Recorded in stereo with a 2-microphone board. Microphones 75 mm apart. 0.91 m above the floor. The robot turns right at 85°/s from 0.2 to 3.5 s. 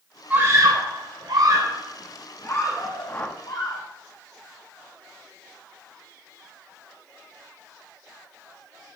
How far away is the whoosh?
About 0.9 m.